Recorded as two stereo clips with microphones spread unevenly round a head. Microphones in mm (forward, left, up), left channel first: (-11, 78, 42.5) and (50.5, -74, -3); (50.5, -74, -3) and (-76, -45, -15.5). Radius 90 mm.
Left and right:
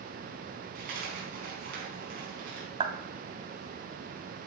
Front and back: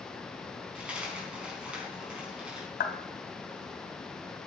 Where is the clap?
10° right, 2 m.